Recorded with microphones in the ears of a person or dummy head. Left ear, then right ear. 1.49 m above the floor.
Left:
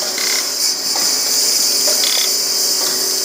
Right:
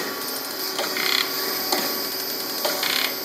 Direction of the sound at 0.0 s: 50° left (ahead or behind).